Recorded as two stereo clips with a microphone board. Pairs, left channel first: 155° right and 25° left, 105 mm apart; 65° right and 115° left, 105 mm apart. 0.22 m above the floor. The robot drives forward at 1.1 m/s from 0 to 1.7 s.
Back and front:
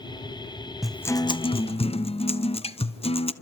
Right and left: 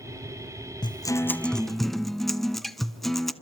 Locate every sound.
0.8 s a guitar: 60° right, 0.5 m; by 3.3 s 155° right, 0.9 m